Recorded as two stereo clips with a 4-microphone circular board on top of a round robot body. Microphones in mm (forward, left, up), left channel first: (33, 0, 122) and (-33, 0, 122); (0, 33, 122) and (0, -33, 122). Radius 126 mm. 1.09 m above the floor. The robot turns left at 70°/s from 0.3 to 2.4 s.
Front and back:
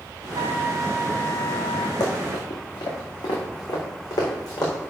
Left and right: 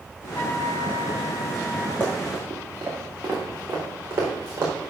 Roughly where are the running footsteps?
Ahead.